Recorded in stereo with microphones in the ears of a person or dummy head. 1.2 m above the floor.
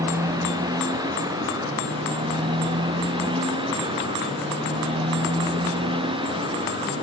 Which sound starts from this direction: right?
A motorcycle, at 0.0 s.